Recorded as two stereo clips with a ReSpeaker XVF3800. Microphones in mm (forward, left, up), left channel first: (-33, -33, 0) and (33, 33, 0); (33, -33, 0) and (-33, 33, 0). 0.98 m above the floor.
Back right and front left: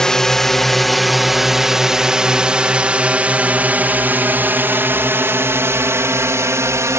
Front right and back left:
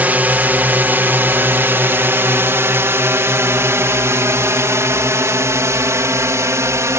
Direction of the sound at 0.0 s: 155° left.